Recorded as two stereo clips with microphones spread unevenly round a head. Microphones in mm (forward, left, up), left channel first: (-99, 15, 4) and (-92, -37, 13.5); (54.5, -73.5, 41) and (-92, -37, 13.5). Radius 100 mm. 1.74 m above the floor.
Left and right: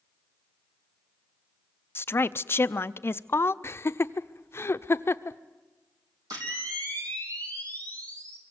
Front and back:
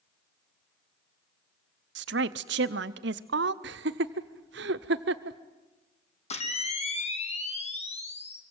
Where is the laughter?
145° left, 0.8 m.